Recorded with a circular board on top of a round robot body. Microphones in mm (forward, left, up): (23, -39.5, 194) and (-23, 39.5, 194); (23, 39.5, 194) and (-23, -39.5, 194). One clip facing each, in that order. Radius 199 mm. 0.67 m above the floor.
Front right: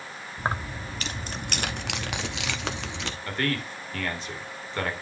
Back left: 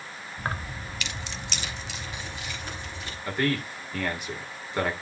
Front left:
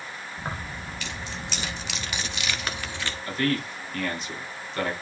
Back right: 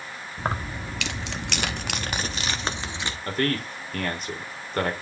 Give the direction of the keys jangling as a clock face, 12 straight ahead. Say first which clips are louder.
Front right 4 dB, back right 7 dB; 4 o'clock.